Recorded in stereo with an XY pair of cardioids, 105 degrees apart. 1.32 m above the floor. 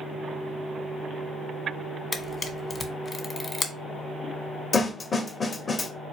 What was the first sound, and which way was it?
A camera shutter, 35° left.